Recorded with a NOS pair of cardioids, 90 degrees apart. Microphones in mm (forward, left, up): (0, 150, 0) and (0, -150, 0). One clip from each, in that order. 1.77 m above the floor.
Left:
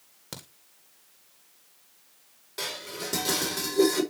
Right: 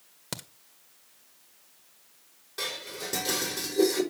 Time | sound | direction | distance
0.3 | a crack | 30° right | 1.9 m
2.6 | dishes clattering | 20° left | 4.5 m